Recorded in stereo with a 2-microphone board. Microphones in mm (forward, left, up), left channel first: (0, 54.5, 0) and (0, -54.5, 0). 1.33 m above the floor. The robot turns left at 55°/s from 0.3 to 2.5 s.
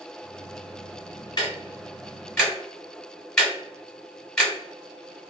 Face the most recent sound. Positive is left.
turn(degrees=10)  # may be behind; listen again after turning